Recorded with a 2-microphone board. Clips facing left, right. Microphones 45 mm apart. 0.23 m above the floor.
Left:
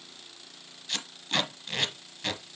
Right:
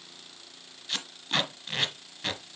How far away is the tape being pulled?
About 1.5 m.